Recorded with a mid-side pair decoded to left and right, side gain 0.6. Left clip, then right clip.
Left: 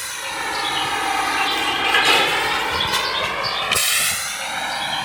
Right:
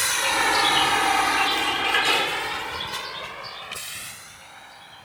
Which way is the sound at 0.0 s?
35° right.